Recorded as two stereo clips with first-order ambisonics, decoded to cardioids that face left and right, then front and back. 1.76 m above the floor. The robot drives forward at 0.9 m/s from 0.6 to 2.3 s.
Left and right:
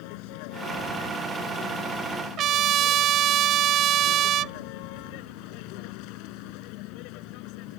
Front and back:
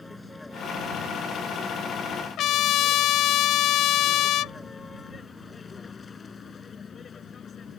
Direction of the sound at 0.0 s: 80° left.